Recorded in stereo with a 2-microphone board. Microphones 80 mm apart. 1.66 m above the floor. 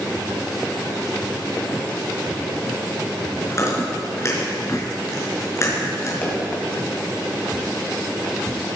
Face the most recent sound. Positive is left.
turn(degrees=25)  # may be behind; listen again after turning